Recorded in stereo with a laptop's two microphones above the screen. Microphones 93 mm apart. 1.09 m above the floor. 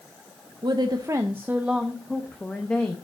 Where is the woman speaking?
55° right (ahead or behind), 0.7 m; by 3.0 s 20° left (ahead or behind), 1.2 m.